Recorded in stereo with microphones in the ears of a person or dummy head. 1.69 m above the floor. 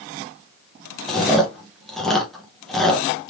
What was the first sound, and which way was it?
Chewing, centre (ahead or behind).